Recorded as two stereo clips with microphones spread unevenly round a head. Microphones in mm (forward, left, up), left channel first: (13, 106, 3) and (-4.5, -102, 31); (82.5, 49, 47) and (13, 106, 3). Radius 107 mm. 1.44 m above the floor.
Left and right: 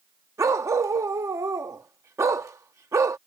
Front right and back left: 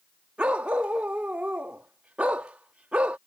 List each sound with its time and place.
0.4 s a dog barking: 70° right